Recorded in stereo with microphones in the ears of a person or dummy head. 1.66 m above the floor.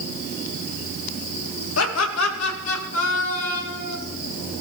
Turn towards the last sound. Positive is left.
turn(degrees=85)